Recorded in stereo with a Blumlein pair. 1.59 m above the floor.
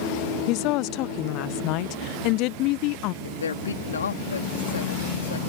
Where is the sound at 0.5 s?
40° left.